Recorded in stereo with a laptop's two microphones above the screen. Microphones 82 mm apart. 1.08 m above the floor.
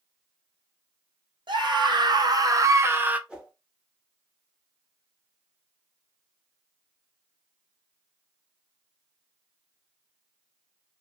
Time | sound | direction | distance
1.5 | a scream | 70° right (ahead or behind) | 1.2 m
3.3 | a whoosh | 10° right (ahead or behind) | 0.7 m